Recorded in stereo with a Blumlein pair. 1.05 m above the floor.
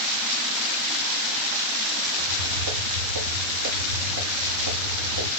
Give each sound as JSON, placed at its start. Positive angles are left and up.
{"t": 2.2, "sound": "footsteps", "azimuth_deg": -65, "distance_m": 7.5}